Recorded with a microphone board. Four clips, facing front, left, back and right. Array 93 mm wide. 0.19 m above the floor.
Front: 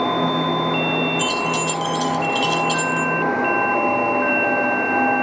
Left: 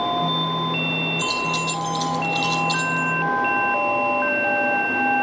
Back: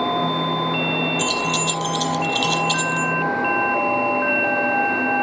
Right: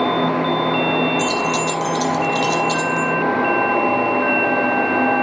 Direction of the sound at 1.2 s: 175° right.